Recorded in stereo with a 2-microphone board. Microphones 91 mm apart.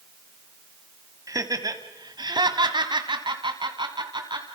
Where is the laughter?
35° right (ahead or behind), 1.9 m; by 4.5 s 55° right (ahead or behind), 2.5 m.